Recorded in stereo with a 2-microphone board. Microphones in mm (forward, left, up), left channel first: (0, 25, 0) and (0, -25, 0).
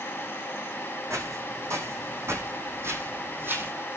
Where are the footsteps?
70° right (ahead or behind), 4 m; by 3.7 s 40° right (ahead or behind), 3 m.